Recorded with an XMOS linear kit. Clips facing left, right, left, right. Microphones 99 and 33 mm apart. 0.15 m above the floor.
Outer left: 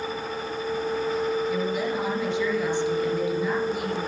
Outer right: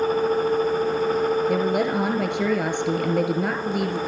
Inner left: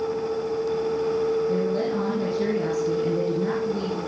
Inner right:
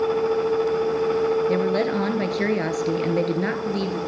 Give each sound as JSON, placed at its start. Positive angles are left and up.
{"t": 1.5, "sound": "a woman speaking", "side_deg": -55, "distance_m": 3.0}